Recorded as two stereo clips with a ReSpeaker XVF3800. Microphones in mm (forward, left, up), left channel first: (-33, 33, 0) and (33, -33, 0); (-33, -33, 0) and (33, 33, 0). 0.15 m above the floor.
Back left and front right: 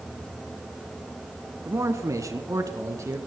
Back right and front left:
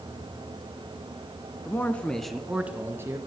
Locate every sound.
1.6 s a man speaking: 85° right, 1.6 m; by 3.2 s straight ahead, 1.8 m